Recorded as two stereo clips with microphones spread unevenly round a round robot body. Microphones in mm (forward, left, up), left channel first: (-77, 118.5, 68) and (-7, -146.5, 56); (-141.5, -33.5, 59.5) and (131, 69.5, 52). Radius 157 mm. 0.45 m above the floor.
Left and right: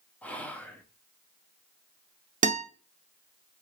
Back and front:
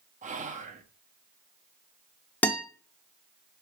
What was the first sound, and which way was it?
Whispering, 20° left.